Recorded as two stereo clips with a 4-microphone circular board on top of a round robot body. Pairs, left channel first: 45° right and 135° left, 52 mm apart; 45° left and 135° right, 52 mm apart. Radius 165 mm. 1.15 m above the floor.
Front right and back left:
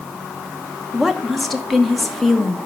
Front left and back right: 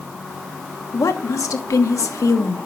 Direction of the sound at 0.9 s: 45° left.